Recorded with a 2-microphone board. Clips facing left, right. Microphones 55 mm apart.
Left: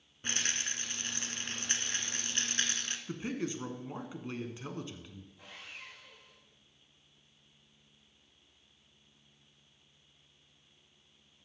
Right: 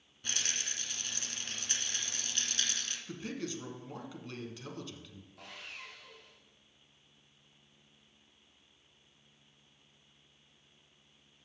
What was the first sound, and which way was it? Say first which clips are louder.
A rattle: left 3 dB; 35° left (ahead or behind).